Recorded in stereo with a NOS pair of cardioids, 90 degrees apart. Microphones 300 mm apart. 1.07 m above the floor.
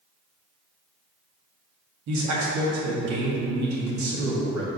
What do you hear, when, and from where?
2.1 s a man speaking: 70° right, 2 m